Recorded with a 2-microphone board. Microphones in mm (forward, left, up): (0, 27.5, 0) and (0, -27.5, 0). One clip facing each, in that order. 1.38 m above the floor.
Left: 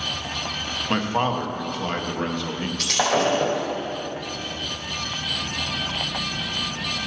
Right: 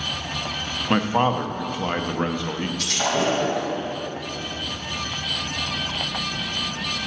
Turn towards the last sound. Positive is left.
turn(degrees=65)  # may be behind; listen again after turning